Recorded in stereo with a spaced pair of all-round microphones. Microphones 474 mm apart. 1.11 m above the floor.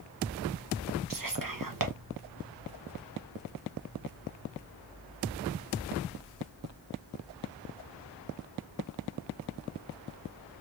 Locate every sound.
1.1 s whispering: 45° right (ahead or behind), 0.8 m